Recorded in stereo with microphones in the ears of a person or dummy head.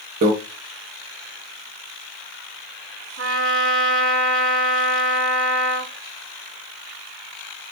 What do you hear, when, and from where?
0.2 s a microwave: 50° right (ahead or behind), 1.0 m
3.2 s a trumpet: 70° right (ahead or behind), 2 m